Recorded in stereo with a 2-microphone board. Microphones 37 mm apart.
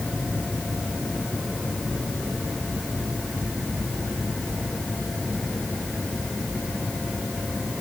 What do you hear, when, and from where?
Only background noise.